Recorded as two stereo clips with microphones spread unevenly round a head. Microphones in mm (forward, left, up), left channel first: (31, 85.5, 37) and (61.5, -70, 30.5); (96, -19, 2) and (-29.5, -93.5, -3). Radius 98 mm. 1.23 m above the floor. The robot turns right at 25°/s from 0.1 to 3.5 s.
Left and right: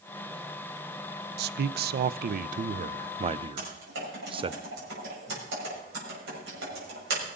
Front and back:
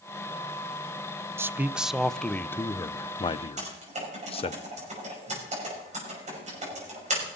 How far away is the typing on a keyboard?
About 6 m.